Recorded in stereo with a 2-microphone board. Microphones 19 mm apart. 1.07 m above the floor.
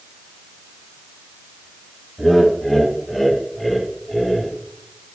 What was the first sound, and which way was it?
Laughter, 5° right (ahead or behind).